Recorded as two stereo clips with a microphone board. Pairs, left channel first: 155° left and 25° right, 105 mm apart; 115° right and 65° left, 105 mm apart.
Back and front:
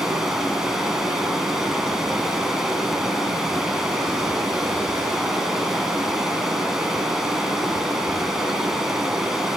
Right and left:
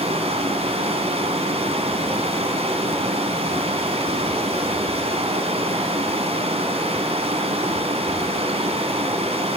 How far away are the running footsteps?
No running footsteps in this recording.